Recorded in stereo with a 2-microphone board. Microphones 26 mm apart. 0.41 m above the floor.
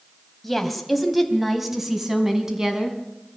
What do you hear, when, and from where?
0.4 s a woman speaking: 10° left (ahead or behind), 3 m; by 3.0 s 20° right (ahead or behind), 4.5 m